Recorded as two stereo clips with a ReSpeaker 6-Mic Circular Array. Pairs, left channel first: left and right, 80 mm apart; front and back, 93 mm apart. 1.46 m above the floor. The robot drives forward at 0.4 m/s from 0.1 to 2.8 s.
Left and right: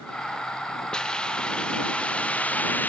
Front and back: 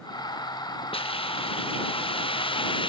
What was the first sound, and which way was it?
A hiss, 10° left.